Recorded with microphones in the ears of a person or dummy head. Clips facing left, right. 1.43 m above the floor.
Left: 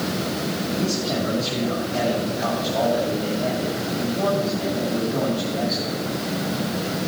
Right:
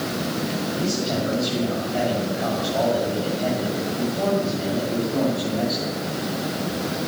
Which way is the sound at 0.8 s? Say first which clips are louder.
Even; 10° right (ahead or behind).